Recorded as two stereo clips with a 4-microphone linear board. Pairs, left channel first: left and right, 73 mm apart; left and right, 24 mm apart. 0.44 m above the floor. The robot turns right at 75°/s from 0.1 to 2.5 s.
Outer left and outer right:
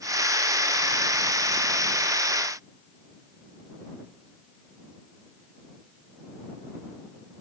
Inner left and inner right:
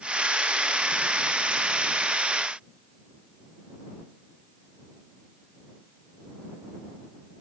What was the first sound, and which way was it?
Only background noise.